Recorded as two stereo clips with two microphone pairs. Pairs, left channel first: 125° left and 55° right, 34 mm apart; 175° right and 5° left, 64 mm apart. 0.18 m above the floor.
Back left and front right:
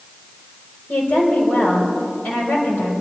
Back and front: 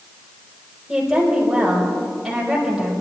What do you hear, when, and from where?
0.9 s a woman speaking: 90° left, 5.5 m